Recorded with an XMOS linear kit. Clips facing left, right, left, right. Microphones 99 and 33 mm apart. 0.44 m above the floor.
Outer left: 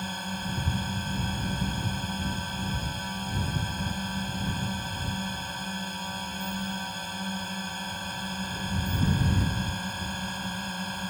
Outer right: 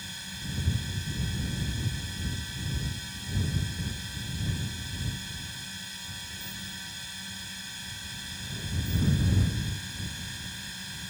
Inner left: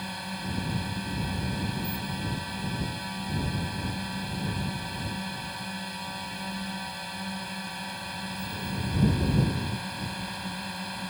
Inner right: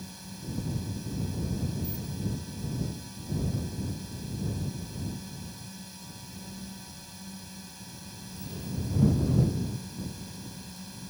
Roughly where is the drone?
Left.